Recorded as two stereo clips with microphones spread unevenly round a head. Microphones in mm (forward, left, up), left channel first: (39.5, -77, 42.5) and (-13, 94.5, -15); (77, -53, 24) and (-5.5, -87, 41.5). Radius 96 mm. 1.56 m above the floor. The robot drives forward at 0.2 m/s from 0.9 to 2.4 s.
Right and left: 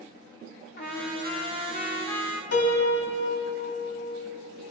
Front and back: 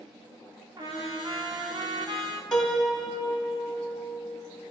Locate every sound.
0.8 s a trumpet: 115° right, 1.2 m; by 2.4 s 130° right, 1.3 m
2.5 s a piano: 65° right, 2.5 m